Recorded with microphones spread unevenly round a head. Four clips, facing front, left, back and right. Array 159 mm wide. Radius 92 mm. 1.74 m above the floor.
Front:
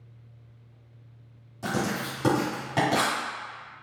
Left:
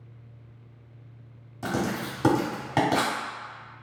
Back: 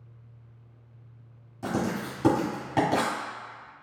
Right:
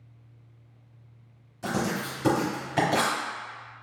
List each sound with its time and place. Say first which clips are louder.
1.6 s writing: even, even; 120° left, 1.8 m